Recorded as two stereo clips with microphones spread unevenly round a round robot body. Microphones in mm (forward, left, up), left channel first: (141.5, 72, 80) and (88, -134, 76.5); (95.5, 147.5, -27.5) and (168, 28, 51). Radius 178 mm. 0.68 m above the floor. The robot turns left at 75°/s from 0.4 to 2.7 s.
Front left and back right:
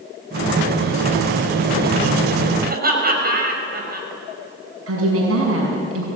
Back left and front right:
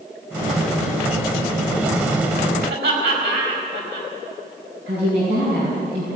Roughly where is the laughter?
Ahead right.